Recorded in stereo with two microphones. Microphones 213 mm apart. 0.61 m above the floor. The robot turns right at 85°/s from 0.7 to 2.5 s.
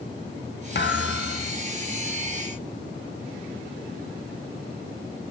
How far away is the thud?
About 1.0 m.